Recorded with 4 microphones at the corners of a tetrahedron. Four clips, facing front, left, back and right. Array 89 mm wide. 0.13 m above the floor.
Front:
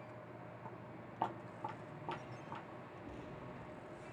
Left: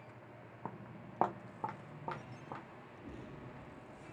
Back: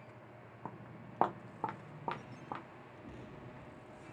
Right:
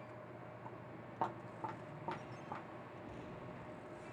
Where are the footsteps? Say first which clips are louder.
Left 2 dB, back 1 dB; 125° left, 0.6 m; by 2.6 s straight behind, 1.7 m.